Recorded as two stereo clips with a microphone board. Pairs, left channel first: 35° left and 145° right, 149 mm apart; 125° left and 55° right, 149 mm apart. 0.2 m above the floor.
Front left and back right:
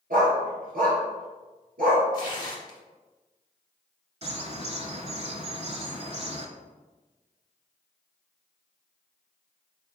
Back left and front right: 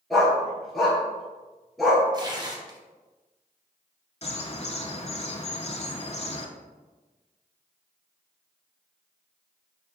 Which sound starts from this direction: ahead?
Tearing paper, at 2.1 s.